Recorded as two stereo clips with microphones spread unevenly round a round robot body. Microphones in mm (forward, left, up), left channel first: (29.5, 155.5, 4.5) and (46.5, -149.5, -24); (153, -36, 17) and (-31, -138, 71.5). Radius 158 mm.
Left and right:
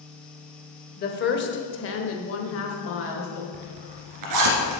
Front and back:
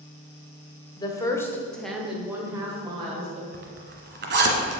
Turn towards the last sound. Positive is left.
turn(degrees=-115)